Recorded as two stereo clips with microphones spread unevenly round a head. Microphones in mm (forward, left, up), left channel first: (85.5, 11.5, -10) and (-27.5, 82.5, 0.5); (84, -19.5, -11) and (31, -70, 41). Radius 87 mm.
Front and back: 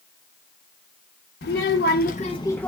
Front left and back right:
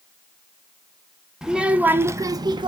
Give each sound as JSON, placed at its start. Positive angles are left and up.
{"t": 1.4, "sound": "a child speaking", "azimuth_deg": -55, "distance_m": 0.8}